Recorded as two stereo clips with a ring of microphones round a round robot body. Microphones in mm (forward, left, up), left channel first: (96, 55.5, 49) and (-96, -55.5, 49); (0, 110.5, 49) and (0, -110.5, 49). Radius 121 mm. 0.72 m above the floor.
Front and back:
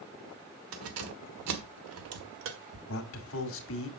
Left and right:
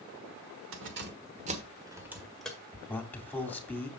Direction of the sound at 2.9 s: 10° left.